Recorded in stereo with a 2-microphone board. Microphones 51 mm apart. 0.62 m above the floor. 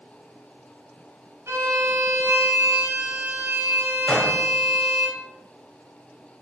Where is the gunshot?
20° left (ahead or behind), 1.8 m.